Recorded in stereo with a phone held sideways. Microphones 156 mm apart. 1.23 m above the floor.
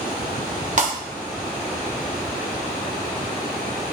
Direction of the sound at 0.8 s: 50° right (ahead or behind).